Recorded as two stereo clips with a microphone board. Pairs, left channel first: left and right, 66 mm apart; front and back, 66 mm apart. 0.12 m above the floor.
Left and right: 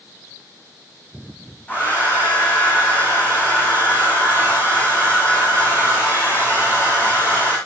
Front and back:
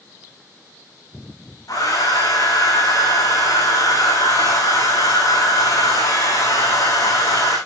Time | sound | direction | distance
1.7 | a hair dryer | 25° left | 7.5 m